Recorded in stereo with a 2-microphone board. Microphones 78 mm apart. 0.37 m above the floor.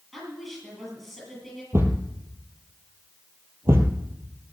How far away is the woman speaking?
About 8.5 m.